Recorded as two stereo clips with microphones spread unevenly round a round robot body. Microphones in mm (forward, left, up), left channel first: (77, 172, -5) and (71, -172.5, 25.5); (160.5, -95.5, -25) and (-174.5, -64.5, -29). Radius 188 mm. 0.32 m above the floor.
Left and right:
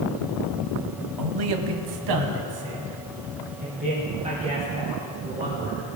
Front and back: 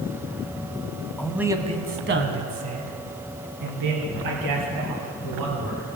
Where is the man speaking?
90° right, 1.7 m; by 5.9 s 170° right, 7 m.